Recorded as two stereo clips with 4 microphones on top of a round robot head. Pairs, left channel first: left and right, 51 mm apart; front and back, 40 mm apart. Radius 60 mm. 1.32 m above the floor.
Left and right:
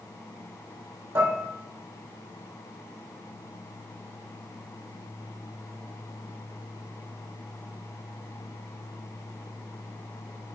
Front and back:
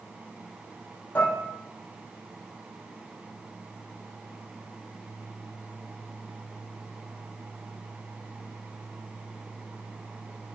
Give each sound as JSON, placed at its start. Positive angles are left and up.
{"t": 1.1, "sound": "dishes clattering", "azimuth_deg": -50, "distance_m": 3.0}